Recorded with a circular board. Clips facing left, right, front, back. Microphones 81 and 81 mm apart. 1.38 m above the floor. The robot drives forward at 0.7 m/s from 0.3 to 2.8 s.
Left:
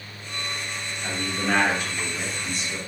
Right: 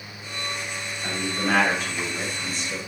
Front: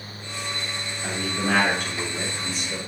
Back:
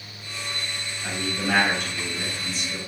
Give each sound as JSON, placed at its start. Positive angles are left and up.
{"t": 1.0, "sound": "a man speaking", "azimuth_deg": -30, "distance_m": 3.0}